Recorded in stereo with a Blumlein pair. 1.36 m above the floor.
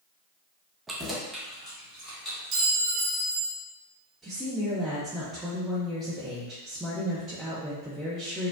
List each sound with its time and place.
0.9 s keys jangling: 10° right, 0.6 m; by 2.7 s 15° left, 2.5 m
2.5 s a clink: 30° right, 1.3 m
4.2 s a woman speaking: 5° right, 0.9 m